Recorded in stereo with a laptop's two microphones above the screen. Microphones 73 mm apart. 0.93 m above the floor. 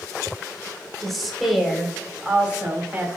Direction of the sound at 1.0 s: 5° left (ahead or behind).